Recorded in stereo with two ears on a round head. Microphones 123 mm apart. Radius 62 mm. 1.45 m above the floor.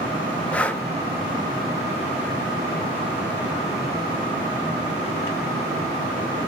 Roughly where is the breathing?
Centre.